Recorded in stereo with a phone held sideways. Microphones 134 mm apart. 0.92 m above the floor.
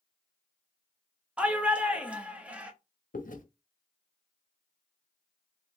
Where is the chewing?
85° left, 0.6 m.